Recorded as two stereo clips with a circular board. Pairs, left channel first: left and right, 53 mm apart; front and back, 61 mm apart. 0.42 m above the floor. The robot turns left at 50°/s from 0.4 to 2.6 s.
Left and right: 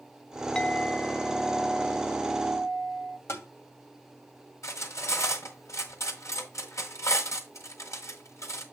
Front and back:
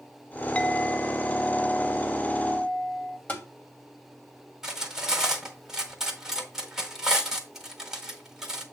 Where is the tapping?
65° left, 2 m.